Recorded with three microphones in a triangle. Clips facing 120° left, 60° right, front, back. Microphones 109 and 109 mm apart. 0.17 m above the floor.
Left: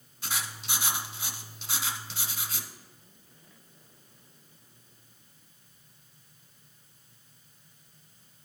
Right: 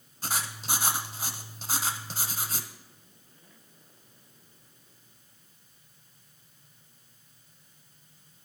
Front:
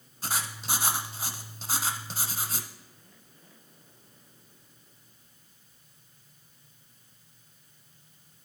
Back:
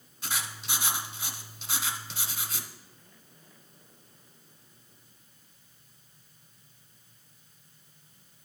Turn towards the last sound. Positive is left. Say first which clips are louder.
# right 3 dB, front 3 dB
turn(degrees=-30)